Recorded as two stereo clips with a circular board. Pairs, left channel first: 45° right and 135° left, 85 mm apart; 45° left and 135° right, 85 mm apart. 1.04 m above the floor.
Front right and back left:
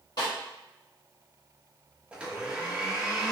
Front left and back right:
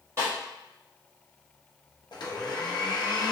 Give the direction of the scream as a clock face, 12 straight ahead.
I don't hear a scream.